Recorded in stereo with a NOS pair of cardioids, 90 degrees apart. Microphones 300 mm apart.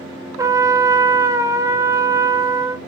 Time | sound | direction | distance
0.4 | a trumpet | 10° right | 0.5 m